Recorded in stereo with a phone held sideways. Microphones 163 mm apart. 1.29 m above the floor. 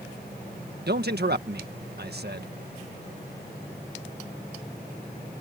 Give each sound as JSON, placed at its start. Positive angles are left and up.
{"t": 0.9, "sound": "a man speaking", "side_deg": -70}